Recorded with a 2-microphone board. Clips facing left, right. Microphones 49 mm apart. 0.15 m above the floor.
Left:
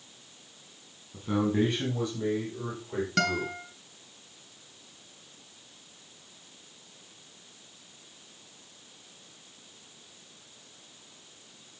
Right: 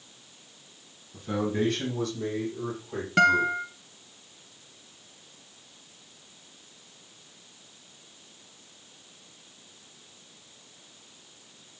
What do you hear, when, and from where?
1.1 s a man speaking: 15° left (ahead or behind), 6.5 m; by 3.5 s 5° left (ahead or behind), 8 m
3.2 s a guitar: 20° right (ahead or behind), 1.0 m